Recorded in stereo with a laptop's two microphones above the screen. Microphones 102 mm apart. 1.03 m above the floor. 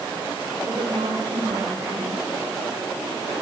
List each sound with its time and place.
0.7 s a woman speaking: 70° right (ahead or behind), 4.5 m